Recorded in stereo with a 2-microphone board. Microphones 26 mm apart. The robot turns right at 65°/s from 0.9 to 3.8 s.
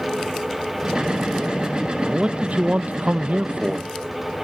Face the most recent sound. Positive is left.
turn(degrees=-40)